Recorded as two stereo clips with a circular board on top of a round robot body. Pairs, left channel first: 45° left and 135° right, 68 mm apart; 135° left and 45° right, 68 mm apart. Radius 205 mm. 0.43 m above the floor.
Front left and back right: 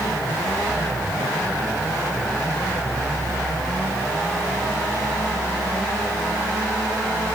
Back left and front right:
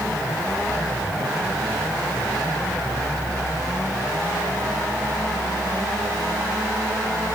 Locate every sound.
Only background noise.